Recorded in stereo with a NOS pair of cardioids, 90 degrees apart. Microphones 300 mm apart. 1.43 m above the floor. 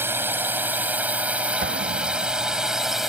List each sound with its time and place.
0.0 s a drone: 5° right; by 3.1 s straight ahead
1.6 s an explosion: 40° right